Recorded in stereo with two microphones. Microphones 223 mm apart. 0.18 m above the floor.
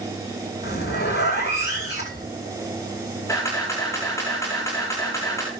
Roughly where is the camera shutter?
Centre.